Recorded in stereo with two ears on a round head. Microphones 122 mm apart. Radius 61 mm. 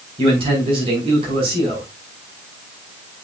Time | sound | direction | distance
0.2 | a man speaking | 45° right (ahead or behind) | 4.5 m